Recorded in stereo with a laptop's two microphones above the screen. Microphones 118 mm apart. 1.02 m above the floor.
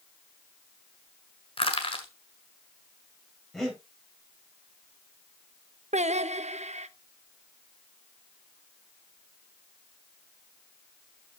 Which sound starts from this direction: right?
Singing, at 5.9 s.